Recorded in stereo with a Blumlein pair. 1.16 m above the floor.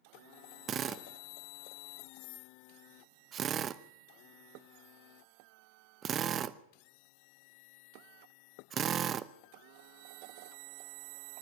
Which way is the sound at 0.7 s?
25° right.